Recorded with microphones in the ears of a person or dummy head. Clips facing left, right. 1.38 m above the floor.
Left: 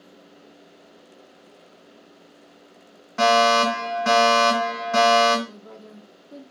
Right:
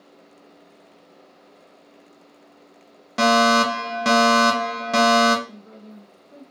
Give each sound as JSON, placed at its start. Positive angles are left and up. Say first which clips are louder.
{"t": 3.2, "sound": "a fire alarm", "louder": "even", "side_deg": -50, "distance_m": 1.1}
{"t": 5.5, "sound": "a woman speaking", "louder": "even", "side_deg": 50, "distance_m": 1.2}